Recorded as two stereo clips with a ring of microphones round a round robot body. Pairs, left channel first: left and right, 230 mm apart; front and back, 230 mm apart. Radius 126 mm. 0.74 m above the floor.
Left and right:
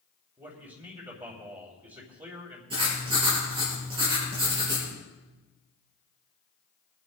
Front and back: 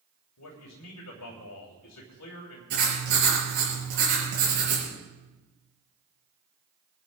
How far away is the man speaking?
About 3 m.